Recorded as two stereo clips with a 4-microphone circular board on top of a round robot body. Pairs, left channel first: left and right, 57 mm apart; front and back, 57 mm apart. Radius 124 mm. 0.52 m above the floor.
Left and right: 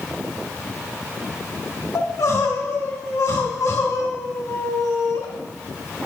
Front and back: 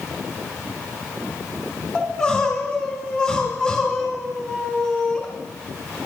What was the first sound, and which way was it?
Crying, 70° left.